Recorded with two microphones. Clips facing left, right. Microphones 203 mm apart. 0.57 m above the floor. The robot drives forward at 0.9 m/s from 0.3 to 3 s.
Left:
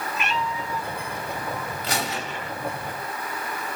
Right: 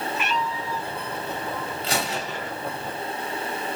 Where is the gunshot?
30° right (ahead or behind), 1.7 m; by 2.5 s 45° right (ahead or behind), 1.2 m.